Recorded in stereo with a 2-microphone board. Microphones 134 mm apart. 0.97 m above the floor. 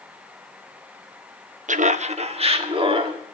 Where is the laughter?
70° right (ahead or behind), 0.7 m; by 3.2 s 40° right (ahead or behind), 2.0 m.